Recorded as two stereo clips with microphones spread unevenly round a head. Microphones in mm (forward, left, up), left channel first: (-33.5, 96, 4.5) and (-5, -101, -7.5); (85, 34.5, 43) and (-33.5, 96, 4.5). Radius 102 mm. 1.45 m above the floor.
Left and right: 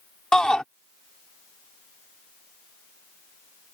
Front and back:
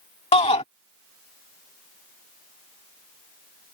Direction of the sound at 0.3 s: 10° left.